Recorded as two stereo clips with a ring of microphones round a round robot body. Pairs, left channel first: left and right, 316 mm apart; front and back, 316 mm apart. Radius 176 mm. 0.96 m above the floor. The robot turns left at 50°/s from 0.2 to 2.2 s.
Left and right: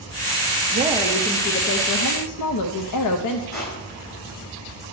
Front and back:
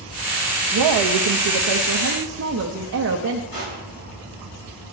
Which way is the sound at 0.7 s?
160° right.